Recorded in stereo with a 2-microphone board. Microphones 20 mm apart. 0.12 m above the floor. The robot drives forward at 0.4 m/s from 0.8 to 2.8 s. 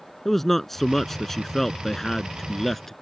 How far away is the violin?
I don't hear a violin.